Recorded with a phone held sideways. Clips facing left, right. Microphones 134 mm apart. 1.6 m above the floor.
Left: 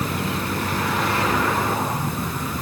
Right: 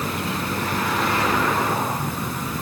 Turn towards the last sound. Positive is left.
No sound to turn to.